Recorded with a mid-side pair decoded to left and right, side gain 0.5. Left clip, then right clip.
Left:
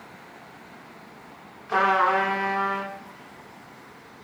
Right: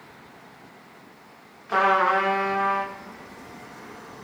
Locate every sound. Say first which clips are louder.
1.7 s a trumpet: right 1 dB; straight ahead, 1.0 m